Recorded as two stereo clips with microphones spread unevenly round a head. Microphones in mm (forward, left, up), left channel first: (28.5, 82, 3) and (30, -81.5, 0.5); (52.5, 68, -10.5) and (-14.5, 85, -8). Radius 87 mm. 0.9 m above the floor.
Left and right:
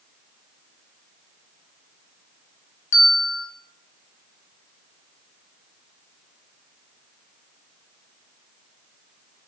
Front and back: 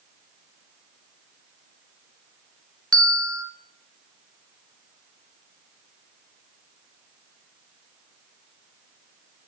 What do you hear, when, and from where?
2.9 s a bell: 65° left, 0.6 m